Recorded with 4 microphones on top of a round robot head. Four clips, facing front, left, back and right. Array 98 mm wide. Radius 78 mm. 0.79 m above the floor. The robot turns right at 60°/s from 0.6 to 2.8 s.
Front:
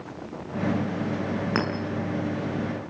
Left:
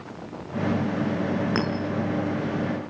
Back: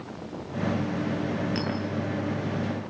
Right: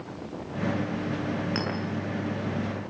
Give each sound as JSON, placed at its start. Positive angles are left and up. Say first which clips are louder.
{"t": 1.6, "sound": "a clink", "louder": "left 5 dB, front 4 dB", "azimuth_deg": 35, "distance_m": 6.0}